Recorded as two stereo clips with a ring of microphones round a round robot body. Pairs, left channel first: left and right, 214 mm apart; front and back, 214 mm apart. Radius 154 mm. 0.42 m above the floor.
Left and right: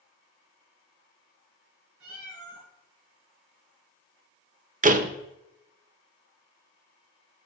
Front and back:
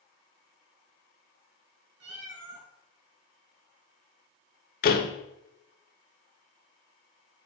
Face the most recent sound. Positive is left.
turn(degrees=-40)